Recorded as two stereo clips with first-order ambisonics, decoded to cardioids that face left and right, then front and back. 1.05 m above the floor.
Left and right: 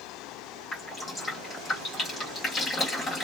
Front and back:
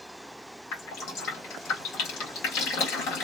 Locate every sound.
0.7 s dripping: 20° left, 1.5 m